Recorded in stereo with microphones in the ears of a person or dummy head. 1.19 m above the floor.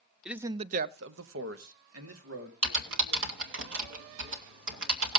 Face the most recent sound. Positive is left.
turn(degrees=-80)